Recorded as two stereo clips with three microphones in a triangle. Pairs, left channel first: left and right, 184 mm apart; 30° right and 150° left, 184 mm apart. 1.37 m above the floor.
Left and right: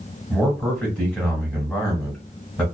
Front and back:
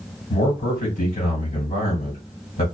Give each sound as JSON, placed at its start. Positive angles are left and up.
{"t": 0.3, "sound": "a man speaking", "azimuth_deg": 0, "distance_m": 1.6}